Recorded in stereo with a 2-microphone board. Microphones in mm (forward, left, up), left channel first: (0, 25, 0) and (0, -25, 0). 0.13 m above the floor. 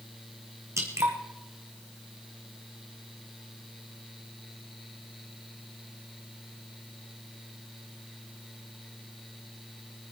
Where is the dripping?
80° right, 2.5 m.